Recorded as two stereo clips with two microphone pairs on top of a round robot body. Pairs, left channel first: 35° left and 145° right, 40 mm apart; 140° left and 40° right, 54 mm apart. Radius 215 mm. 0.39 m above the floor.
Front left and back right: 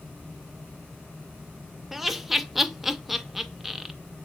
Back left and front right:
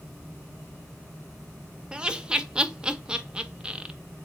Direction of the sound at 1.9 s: 55° right.